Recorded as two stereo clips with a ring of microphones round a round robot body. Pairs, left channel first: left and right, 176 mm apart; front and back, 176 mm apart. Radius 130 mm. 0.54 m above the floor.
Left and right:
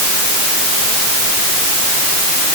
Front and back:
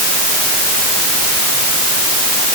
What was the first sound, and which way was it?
Only background noise.